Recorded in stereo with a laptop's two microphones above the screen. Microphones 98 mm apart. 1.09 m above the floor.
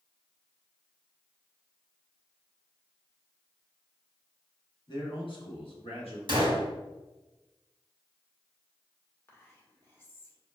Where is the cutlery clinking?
I don't hear cutlery clinking.